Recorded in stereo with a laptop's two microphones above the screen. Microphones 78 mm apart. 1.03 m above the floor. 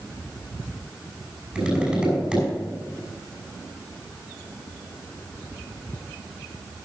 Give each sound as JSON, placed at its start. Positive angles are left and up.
{"t": 1.6, "sound": "tapping", "side_deg": -10, "distance_m": 5.5}